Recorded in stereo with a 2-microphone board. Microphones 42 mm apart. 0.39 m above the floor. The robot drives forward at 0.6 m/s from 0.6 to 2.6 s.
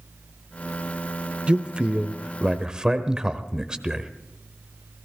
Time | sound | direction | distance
1.5 | a man speaking | 25° right (ahead or behind) | 0.8 m